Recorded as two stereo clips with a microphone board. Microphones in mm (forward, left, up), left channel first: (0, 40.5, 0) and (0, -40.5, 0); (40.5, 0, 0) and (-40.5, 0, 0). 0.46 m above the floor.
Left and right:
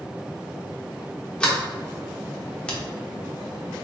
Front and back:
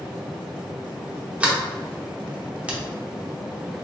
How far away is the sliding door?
About 0.9 m.